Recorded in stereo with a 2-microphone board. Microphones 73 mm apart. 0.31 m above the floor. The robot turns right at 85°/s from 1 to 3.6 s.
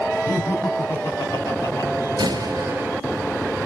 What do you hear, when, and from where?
0.3 s laughter: 35° left, 2.5 m; by 1.9 s 110° left, 2.5 m
2.2 s a door slam: 85° right, 4 m; by 2.9 s 25° right, 4 m